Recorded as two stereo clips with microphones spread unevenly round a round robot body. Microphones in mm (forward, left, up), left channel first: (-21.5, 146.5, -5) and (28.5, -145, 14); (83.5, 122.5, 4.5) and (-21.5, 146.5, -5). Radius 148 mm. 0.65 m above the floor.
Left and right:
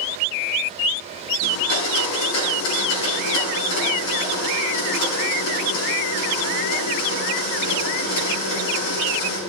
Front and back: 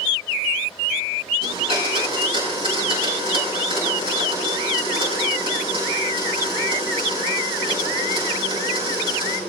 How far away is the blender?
About 7 m.